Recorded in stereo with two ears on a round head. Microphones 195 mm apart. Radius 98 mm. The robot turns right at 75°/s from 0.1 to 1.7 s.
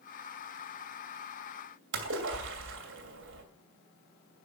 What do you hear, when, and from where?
1.9 s a splash: 60° right (ahead or behind), 2.5 m